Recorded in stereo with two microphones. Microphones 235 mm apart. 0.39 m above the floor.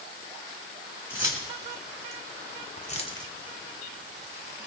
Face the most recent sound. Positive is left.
turn(degrees=-45)  # may be behind; listen again after turning